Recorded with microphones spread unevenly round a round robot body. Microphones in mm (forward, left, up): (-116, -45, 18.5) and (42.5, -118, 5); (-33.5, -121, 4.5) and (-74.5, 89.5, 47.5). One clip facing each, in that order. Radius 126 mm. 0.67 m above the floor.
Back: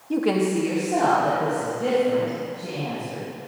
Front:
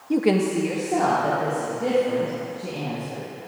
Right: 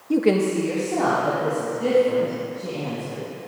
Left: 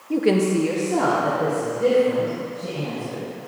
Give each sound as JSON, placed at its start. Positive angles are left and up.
{"t": 0.1, "sound": "a woman speaking", "azimuth_deg": -75, "distance_m": 0.6}